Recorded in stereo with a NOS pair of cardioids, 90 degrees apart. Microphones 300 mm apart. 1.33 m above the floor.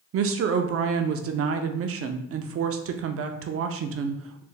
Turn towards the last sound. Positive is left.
turn(degrees=-50)